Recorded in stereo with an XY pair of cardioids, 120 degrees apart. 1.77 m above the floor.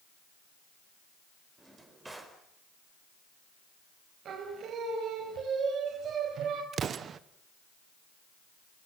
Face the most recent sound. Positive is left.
turn(degrees=-45)